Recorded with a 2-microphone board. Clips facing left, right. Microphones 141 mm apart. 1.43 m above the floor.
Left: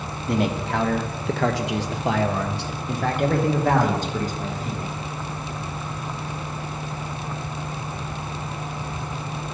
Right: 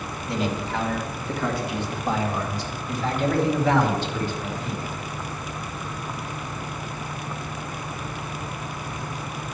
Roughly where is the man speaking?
Left.